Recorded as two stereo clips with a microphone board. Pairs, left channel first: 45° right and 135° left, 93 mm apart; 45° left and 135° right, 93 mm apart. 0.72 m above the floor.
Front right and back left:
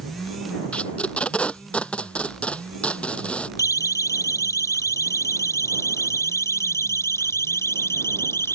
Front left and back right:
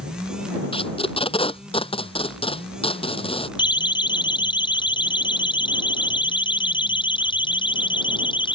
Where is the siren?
10° left; by 8.6 s 20° left.